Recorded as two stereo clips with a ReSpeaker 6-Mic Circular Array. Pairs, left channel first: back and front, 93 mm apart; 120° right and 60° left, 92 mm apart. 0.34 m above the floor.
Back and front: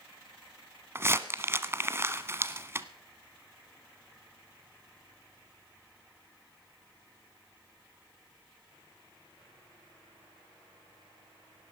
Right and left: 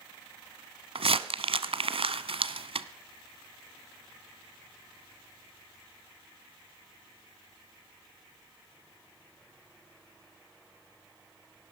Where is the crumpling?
60° left, 1.0 m.